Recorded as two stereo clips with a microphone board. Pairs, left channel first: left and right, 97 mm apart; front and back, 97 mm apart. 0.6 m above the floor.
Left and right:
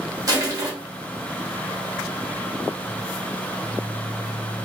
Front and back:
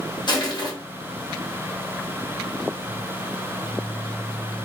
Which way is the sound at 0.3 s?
40° right.